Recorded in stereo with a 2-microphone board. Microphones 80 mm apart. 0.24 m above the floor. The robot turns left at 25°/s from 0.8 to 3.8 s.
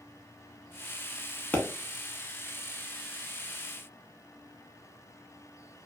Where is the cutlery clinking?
I don't hear cutlery clinking.